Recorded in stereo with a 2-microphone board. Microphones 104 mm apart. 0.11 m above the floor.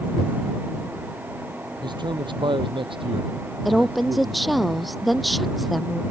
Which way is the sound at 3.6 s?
Centre (ahead or behind).